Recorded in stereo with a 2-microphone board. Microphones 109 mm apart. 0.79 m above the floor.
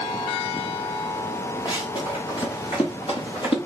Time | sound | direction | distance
1.6 | running footsteps | 45° left (ahead or behind) | 3.5 m